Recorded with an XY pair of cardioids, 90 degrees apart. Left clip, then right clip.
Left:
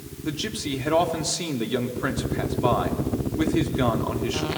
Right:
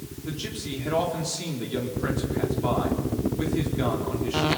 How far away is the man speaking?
About 4 m.